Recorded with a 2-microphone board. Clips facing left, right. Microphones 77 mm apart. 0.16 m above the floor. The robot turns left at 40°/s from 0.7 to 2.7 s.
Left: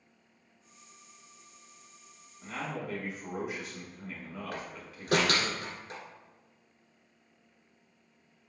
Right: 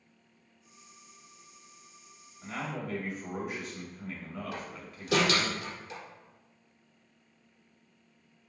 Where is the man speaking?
5° right (ahead or behind), 1.7 m; by 5.5 s centre (ahead or behind), 1.7 m.